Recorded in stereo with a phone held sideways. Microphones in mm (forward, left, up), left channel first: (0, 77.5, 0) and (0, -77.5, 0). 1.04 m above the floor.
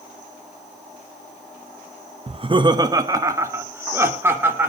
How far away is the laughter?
About 0.7 m.